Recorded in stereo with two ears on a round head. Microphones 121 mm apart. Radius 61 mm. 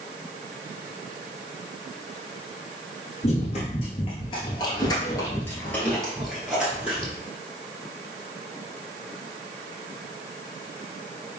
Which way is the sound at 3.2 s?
50° left (ahead or behind).